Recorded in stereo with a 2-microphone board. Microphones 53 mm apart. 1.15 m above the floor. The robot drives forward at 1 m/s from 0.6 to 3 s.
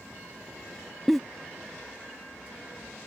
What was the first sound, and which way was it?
A giggle, centre (ahead or behind).